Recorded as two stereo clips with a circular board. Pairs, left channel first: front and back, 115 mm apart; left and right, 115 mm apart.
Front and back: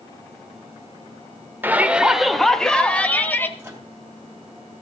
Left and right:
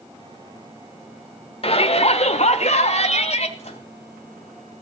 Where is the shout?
110° left, 1.2 m; by 3.5 s 75° left, 2.0 m.